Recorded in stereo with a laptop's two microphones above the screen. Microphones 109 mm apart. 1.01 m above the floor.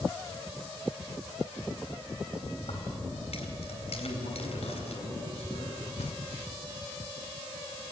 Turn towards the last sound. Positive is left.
turn(degrees=75)  # may be behind; listen again after turning